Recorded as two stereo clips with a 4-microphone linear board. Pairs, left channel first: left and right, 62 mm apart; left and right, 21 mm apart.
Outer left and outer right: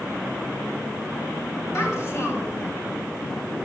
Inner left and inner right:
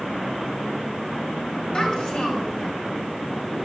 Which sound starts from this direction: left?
A child speaking, at 1.7 s.